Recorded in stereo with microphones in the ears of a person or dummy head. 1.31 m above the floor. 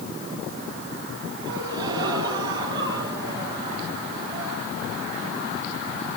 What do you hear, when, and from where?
1.5 s a gasp: 20° right (ahead or behind), 4 m